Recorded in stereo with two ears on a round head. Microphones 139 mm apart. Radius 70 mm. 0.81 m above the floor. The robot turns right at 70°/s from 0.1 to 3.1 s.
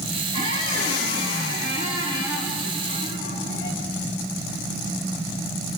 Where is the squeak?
155° right, 8 m; by 3.8 s 40° left, 8 m.